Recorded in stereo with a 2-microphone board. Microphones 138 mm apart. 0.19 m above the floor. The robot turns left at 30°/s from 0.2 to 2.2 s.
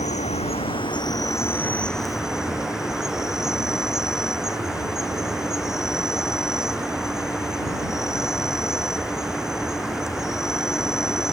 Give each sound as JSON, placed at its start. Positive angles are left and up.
{"t": 0.0, "sound": "an insect", "azimuth_deg": 55}